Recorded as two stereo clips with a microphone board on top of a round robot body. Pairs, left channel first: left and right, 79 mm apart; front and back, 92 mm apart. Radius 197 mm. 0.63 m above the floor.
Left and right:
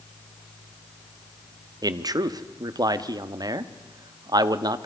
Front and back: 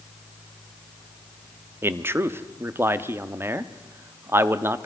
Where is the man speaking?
120° right, 1.2 m.